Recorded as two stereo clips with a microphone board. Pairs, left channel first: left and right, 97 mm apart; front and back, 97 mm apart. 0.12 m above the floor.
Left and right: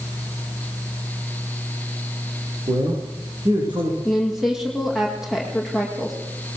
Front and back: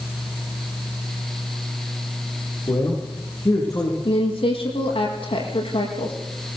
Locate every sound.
2.7 s a man speaking: 50° right, 8.5 m
4.0 s a woman speaking: 5° right, 6.5 m